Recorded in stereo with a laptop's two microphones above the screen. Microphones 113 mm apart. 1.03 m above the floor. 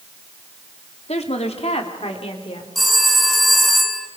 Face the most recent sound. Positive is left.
turn(degrees=0)  # may be behind; listen again after turning